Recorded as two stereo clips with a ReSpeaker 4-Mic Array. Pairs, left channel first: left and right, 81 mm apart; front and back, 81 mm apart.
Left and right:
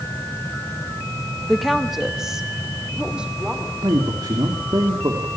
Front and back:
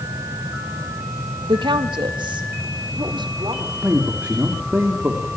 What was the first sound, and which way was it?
A woman speaking, 175° left.